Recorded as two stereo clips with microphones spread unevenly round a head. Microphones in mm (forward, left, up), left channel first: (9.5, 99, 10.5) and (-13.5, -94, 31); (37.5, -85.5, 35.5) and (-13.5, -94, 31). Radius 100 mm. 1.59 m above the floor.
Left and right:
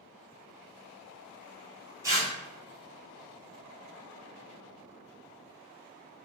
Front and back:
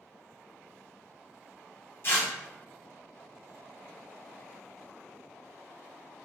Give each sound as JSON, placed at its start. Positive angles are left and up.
{"t": 2.0, "sound": "tearing paper", "azimuth_deg": -25, "distance_m": 1.2}